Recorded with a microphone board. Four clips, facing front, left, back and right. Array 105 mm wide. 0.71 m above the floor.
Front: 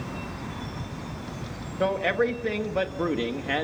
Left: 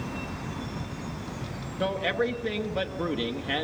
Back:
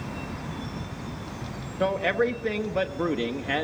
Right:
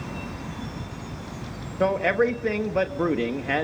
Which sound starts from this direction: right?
A man speaking, at 1.8 s.